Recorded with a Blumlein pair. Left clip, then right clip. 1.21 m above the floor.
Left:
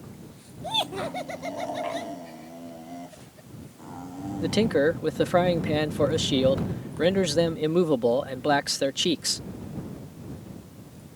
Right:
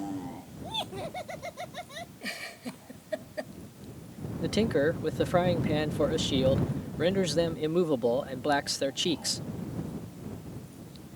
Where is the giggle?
40° right.